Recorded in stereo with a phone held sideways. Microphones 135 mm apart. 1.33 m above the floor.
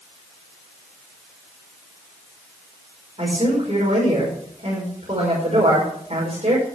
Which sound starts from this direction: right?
A man speaking, at 3.2 s.